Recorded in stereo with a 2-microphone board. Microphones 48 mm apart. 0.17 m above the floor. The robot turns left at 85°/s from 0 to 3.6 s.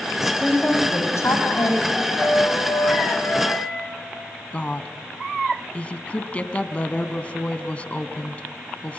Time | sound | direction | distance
0.2 | a woman speaking | 175° right | 7 m
1.9 | a flute | straight behind | 7.5 m
4.5 | a woman speaking | 25° left (ahead or behind) | 1.1 m